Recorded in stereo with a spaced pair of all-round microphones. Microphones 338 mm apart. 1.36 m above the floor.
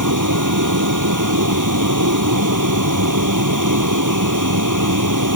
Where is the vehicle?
65° right (ahead or behind).